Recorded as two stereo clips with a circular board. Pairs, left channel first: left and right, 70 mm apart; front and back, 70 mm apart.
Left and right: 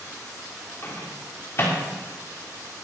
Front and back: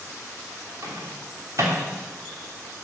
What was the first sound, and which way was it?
A microwave, 140° left.